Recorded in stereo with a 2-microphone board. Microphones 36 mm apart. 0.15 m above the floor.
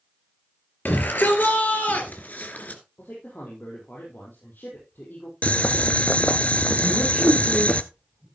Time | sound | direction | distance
0.8 | a shout | 60° left (ahead or behind) | 3.5 m
3.0 | a man speaking | 65° left (ahead or behind) | 4.5 m
5.4 | boiling | 40° left (ahead or behind) | 0.8 m
6.8 | a man speaking | 20° right (ahead or behind) | 5.5 m